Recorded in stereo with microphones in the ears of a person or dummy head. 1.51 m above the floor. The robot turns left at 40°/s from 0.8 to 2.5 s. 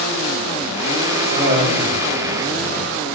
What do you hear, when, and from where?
1.3 s laughter: 35° right (ahead or behind), 3 m; by 2.0 s 60° right (ahead or behind), 3 m